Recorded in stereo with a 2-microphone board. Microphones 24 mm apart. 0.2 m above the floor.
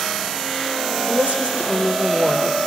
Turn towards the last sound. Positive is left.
turn(degrees=-75)  # may be behind; listen again after turning